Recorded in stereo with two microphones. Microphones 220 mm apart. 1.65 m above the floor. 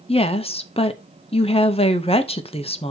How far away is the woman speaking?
About 0.7 m.